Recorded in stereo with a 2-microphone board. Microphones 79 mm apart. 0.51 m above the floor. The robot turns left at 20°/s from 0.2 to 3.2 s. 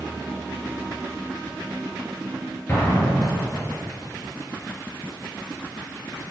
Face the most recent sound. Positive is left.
turn(degrees=15)  # may be behind; listen again after turning